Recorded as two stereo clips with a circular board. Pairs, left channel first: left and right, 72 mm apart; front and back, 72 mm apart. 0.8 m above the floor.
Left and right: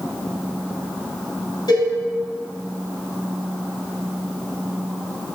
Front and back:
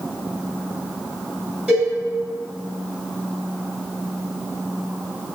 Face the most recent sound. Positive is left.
turn(degrees=105)